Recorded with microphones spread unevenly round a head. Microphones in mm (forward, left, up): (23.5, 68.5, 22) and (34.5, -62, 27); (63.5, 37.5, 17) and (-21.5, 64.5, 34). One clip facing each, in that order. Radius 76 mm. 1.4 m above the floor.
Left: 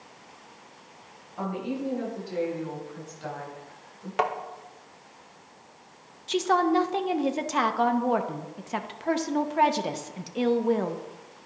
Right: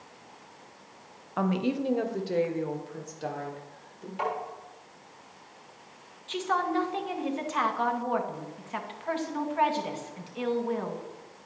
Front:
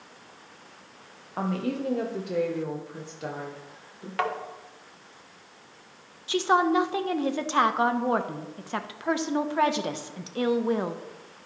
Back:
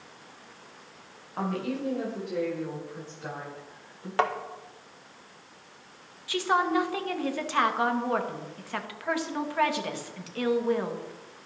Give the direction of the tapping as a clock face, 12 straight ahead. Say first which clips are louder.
Left 4 dB, back 2 dB; 8 o'clock.